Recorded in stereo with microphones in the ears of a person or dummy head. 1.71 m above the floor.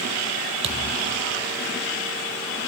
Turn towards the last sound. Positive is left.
turn(degrees=-30)  # may be behind; listen again after turning